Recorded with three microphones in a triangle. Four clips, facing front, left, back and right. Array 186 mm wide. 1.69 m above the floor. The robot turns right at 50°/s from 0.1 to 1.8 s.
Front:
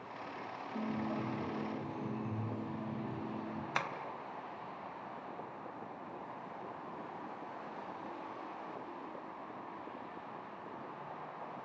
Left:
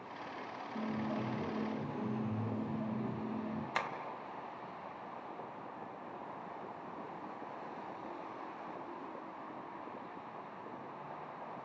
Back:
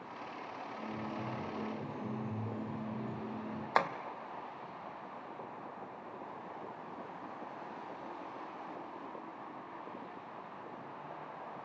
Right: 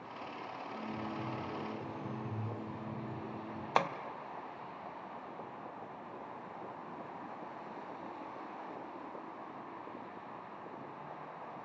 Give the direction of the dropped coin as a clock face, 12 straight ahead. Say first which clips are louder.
Left 4 dB, front 5 dB; 11 o'clock.